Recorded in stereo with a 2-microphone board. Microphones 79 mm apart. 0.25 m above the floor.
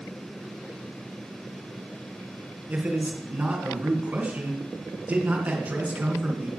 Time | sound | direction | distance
2.7 | a man speaking | 20° right (ahead or behind) | 3 m